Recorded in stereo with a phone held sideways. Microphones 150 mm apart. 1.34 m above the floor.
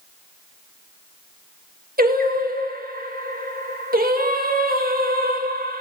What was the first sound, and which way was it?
Singing, 70° right (ahead or behind).